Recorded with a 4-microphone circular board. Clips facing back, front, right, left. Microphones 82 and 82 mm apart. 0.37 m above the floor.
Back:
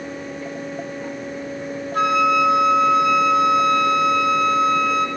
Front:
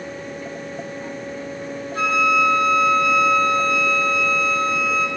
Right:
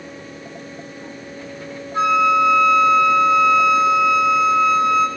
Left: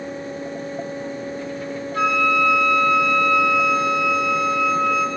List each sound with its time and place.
1.9 s a flute: 155° right, 1.6 m